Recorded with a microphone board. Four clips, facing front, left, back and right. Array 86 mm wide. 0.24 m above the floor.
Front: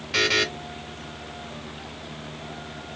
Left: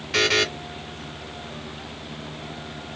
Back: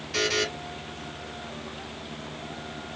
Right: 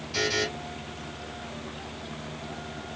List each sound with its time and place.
0.1 s a buzzer: 50° left, 0.7 m